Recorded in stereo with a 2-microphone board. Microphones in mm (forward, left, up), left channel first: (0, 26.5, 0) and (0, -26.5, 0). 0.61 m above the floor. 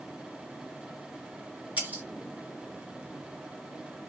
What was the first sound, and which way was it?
Breaking glass, 30° right (ahead or behind).